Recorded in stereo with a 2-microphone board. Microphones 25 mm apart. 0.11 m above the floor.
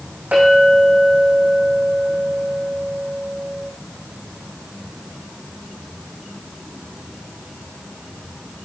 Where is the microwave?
I don't hear a microwave.